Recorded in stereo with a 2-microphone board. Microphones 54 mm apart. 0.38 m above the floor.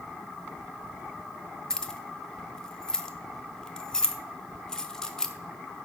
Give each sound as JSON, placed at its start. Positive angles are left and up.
{"t": 1.7, "sound": "keys jangling", "side_deg": 10, "distance_m": 0.6}